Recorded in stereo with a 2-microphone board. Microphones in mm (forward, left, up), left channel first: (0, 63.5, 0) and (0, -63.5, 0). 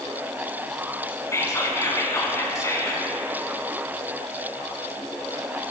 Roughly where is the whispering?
Left.